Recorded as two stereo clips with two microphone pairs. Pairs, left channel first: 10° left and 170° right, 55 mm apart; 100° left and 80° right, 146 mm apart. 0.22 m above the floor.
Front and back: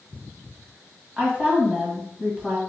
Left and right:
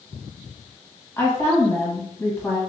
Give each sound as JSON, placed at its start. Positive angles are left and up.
{"t": 1.2, "sound": "a woman speaking", "azimuth_deg": 150, "distance_m": 1.6}